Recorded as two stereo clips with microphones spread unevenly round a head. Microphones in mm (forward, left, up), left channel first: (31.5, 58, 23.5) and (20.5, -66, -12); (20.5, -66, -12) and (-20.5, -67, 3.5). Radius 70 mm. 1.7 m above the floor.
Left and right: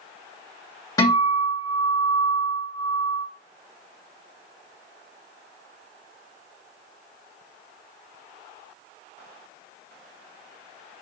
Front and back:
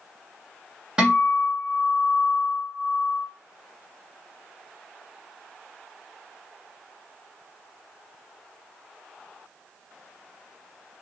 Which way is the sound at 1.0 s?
130° left.